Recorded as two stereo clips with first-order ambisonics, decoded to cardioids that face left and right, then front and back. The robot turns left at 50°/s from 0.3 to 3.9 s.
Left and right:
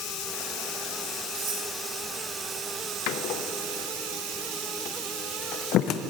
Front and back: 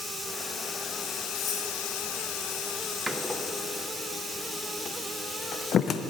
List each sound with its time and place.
0.0 s running water: 90° left, 1.8 m; by 6.1 s 90° right, 1.8 m
1.4 s cutlery clinking: 45° right, 4.5 m; by 1.7 s 60° right, 4.5 m
3.1 s a door slam: 95° left, 0.6 m; by 6.0 s 55° left, 0.6 m